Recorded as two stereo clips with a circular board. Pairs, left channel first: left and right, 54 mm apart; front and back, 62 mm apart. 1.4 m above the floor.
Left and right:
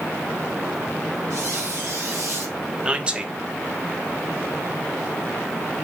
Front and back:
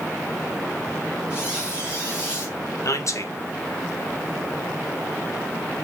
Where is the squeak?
110° right, 1.6 m.